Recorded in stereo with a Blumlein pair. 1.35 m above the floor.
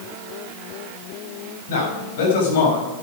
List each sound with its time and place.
1.7 s a man speaking: 60° left, 7 m